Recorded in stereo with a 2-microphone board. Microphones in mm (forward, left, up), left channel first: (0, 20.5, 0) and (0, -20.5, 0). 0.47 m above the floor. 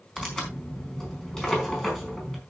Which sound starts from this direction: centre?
Tearing paper, at 0.2 s.